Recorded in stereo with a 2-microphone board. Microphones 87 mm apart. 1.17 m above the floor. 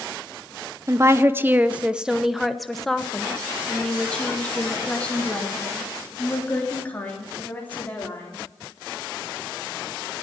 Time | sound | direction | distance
0.9 | a woman speaking | 35° right (ahead or behind) | 0.6 m